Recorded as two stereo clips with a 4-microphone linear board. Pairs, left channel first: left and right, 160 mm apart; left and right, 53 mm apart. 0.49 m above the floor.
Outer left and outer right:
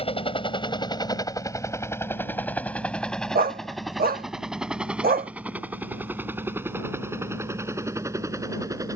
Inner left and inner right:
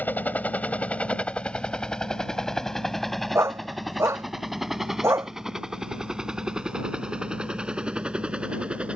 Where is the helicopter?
35° left (ahead or behind); by 9.0 s 20° right (ahead or behind).